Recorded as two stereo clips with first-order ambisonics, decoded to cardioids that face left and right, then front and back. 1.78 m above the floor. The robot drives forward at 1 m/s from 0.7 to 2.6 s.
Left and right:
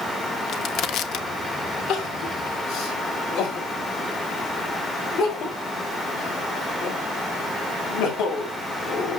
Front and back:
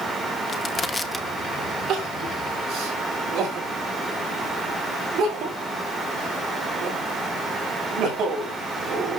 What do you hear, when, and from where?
0.5 s crushing: 60° left, 1.1 m; by 1.3 s 105° left, 1.0 m
1.9 s crying: 125° left, 7 m; by 9.2 s 130° left, 7.5 m